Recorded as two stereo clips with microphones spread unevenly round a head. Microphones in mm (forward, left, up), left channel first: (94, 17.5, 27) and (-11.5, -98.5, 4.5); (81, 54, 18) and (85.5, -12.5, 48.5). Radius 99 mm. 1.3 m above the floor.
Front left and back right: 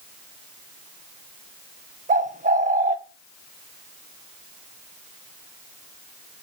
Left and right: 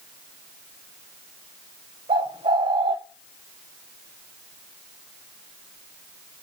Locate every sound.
2.1 s a bird: 95° right, 0.9 m